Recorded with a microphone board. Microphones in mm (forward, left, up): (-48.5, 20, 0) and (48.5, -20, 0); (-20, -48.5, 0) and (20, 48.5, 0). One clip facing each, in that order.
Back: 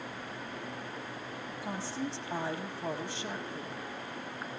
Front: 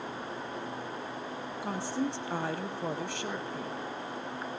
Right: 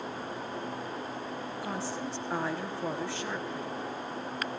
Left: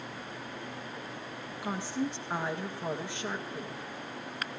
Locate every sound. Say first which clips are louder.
1.6 s a woman speaking: front 5 dB, left 5 dB; 5° right, 3 m